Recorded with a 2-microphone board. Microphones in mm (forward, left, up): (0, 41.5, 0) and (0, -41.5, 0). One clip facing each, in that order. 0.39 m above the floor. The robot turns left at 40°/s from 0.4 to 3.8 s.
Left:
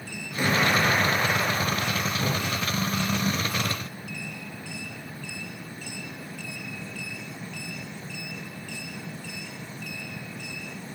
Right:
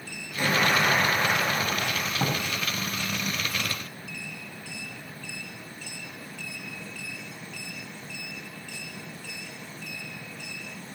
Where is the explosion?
15° left, 3 m; by 2.0 s 50° right, 3 m.